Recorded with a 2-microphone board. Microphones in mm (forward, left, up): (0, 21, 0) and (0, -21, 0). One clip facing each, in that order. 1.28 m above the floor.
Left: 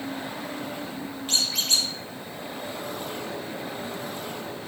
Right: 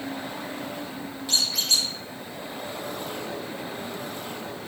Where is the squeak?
45° left (ahead or behind), 1.2 m.